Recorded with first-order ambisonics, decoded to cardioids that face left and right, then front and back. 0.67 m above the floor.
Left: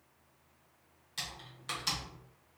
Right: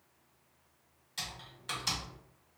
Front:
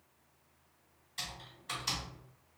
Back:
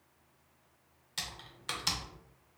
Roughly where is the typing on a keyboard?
Behind.